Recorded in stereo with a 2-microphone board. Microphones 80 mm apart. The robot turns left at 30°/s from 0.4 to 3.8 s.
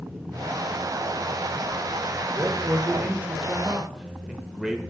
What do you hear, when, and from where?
2.3 s a man speaking: 120° right, 1.0 m; by 4.8 s 165° right, 1.0 m